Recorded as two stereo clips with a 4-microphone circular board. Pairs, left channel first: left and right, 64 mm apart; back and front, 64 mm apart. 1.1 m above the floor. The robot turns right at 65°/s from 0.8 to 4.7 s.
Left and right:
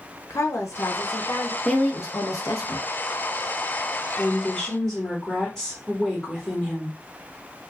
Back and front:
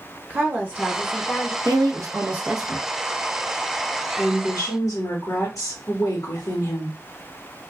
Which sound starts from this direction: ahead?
A woman speaking, at 1.6 s.